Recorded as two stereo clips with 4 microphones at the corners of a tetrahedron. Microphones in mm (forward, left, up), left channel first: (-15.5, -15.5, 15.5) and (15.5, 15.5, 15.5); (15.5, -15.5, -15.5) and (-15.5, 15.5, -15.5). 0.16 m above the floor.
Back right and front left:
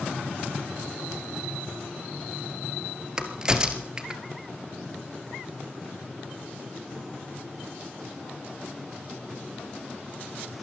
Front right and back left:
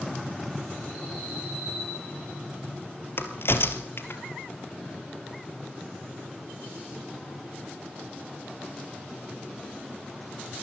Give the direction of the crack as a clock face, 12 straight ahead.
1 o'clock.